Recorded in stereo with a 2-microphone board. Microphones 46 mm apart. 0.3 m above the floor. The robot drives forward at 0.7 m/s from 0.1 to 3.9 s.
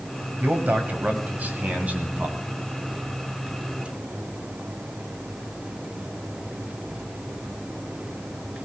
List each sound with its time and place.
0.4 s a man speaking: 45° right (ahead or behind), 1.4 m; by 2.4 s 30° right (ahead or behind), 2 m